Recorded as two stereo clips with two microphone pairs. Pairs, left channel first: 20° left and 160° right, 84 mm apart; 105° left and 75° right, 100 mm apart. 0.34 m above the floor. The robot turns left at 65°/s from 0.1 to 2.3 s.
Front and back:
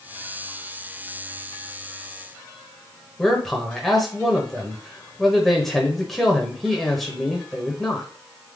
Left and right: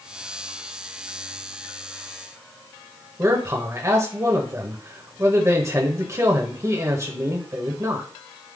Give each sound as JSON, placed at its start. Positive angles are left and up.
{"t": 3.2, "sound": "a man speaking", "azimuth_deg": -65, "distance_m": 1.1}